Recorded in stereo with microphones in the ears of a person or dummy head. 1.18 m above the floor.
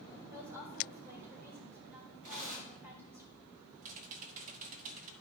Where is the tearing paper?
45° right (ahead or behind), 5 m.